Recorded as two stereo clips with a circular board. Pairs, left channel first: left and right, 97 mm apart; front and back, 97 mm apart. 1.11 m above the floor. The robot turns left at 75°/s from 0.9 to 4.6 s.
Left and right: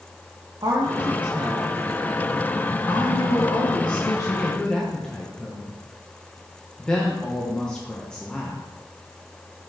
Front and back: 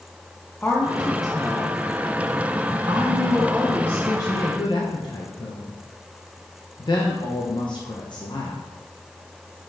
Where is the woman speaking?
70° right, 0.9 m; by 8.6 s 10° left, 0.9 m.